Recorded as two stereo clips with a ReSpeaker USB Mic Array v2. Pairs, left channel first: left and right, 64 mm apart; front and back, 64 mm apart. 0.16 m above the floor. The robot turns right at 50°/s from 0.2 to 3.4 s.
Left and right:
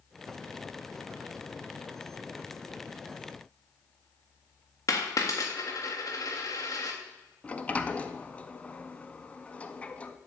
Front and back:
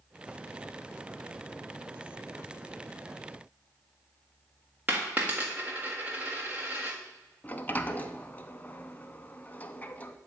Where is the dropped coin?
115° left, 1.4 m.